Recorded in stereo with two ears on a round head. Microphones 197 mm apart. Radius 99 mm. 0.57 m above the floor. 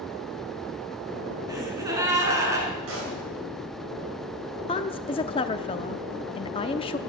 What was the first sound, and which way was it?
A gasp, 15° right (ahead or behind).